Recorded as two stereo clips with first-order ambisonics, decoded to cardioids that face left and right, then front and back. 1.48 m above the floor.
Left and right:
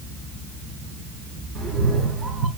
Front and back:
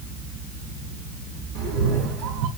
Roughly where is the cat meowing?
Behind.